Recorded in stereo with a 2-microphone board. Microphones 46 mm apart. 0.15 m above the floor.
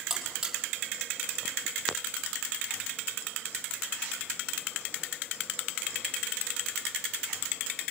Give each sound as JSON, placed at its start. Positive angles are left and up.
{"t": 0.1, "sound": "a buzzer", "side_deg": -10, "distance_m": 5.0}